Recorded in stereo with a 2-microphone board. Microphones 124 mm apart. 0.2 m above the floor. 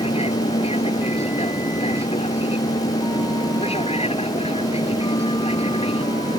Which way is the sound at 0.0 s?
55° left (ahead or behind).